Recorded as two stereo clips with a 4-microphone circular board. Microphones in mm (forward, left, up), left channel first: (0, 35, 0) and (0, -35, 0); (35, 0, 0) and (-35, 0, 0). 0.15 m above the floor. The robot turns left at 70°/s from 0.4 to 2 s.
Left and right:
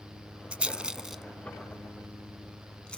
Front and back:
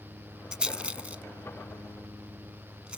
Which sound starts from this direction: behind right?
A rattle, at 0.5 s.